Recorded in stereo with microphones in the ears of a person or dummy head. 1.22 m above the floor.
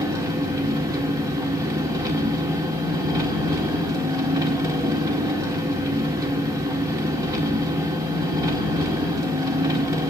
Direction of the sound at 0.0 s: 15° right (ahead or behind).